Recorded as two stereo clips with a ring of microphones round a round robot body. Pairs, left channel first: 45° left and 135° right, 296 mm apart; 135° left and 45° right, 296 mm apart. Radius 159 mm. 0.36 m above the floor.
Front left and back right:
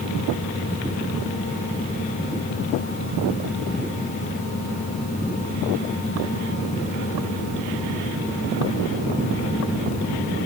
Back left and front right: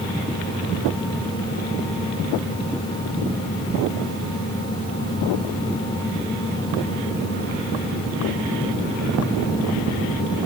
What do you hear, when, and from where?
Only background noise.